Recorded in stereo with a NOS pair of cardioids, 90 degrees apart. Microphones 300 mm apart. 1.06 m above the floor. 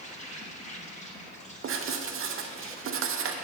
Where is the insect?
25° left, 1.4 m.